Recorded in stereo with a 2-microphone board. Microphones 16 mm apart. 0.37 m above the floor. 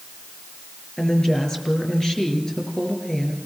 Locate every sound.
1.0 s a woman speaking: 45° left (ahead or behind), 5.5 m